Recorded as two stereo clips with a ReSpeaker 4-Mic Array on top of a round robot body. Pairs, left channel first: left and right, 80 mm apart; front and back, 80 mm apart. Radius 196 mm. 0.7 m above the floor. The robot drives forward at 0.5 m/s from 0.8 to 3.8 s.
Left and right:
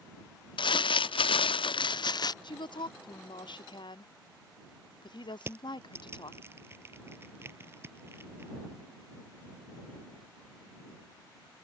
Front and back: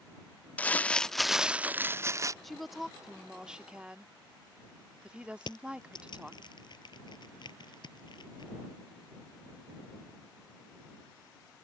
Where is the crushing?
30° right.